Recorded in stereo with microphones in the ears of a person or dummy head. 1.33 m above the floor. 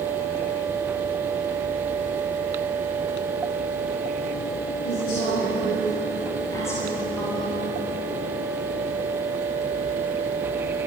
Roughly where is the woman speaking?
Left.